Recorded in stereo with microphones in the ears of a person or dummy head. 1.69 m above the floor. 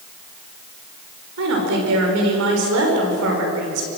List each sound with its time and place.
1.4 s a woman speaking: 75° right (ahead or behind), 6 m